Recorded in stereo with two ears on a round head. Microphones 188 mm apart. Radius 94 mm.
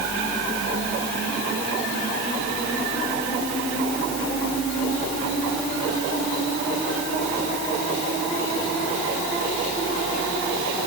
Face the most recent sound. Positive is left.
No sound to turn to.